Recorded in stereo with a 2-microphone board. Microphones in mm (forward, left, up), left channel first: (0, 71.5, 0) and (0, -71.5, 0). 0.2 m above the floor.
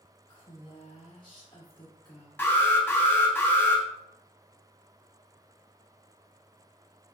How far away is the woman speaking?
About 2.0 m.